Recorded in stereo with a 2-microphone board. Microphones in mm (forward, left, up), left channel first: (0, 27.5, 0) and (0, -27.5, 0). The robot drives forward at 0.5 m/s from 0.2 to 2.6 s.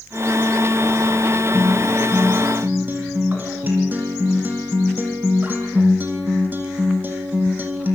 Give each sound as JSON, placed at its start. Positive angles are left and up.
{"t": 1.5, "sound": "a guitar", "side_deg": -35, "distance_m": 4.5}